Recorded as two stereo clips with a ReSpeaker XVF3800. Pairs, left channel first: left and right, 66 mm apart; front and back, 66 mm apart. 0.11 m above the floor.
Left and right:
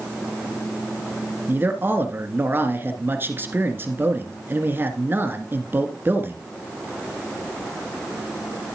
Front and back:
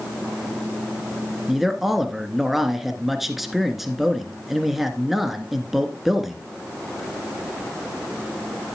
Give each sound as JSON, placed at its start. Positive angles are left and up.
{"t": 1.5, "sound": "a man speaking", "azimuth_deg": -95, "distance_m": 1.4}